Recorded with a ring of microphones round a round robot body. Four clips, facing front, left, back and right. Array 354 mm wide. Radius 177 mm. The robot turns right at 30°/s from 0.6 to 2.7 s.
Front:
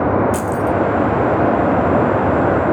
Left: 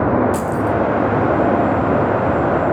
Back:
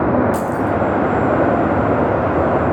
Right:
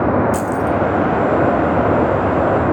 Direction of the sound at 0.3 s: 25° right.